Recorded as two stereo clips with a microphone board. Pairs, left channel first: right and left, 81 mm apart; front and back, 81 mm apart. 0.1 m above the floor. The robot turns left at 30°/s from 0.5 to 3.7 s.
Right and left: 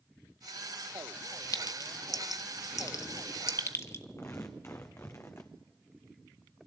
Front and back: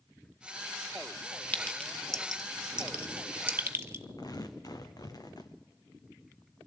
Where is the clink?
65° right, 1.2 m; by 4.0 s 130° right, 1.2 m.